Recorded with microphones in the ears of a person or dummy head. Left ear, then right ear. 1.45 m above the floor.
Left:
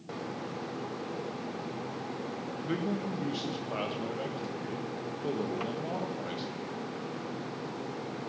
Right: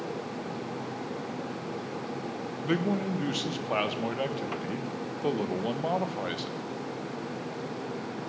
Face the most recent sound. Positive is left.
turn(degrees=-30)  # may be behind; listen again after turning